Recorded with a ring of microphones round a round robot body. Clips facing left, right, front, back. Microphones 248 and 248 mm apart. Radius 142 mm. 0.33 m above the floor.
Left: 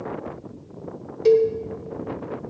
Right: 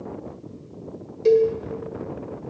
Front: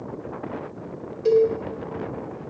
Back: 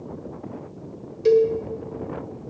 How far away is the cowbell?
About 1.4 m.